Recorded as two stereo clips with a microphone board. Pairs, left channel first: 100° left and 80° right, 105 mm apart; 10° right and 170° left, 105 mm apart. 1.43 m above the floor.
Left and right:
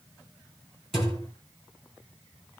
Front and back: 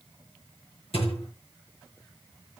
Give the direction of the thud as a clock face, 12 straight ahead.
12 o'clock.